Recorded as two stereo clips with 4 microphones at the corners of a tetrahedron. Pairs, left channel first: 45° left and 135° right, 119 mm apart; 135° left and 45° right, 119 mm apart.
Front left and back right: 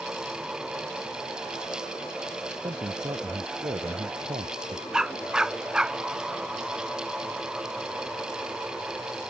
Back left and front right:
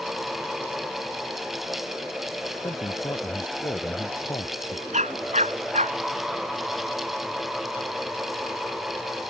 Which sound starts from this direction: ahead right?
A dog barking, at 4.9 s.